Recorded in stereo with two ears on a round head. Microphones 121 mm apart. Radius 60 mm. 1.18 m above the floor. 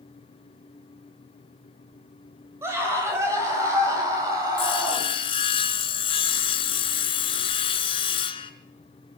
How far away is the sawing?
About 2 m.